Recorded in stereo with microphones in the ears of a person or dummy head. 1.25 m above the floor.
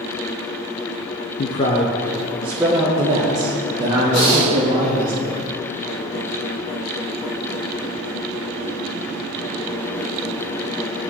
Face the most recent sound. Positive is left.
turn(degrees=55)  # may be behind; listen again after turning